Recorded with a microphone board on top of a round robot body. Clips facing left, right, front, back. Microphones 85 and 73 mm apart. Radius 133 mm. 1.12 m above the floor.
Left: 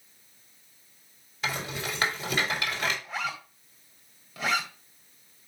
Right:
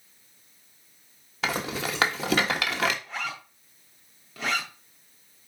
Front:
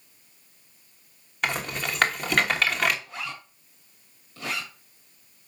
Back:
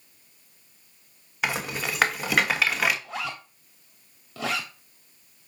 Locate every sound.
1.4 s a rattle: 95° right, 1.2 m
3.0 s a zipper: 175° left, 1.6 m